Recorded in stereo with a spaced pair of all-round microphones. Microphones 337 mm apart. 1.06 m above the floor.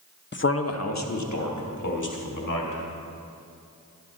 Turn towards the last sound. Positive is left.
turn(degrees=65)  # may be behind; listen again after turning